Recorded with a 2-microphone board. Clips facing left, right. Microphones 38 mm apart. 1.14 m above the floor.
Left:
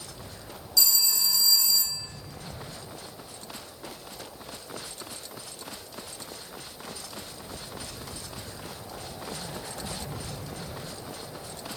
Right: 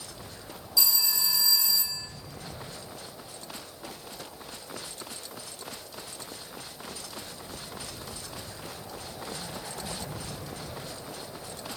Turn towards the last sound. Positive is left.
turn(degrees=-20)  # may be behind; listen again after turning